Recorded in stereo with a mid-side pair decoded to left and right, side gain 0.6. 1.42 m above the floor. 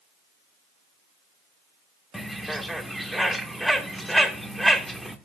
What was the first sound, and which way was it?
A bird, straight ahead.